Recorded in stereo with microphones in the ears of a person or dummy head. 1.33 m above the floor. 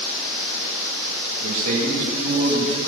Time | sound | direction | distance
1.4 | a man speaking | 45° right (ahead or behind) | 2.0 m